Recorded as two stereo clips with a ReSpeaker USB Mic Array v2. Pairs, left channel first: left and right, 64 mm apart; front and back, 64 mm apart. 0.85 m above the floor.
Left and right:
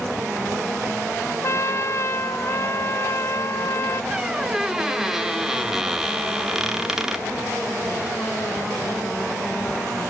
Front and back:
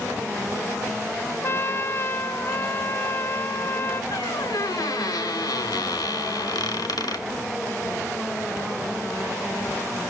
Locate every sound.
1.4 s a trumpet: 50° left, 0.7 m
4.1 s a squeak: 5° right, 1.2 m